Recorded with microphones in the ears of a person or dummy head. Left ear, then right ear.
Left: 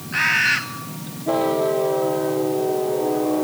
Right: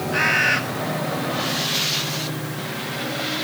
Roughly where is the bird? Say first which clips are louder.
Left 1 dB; centre.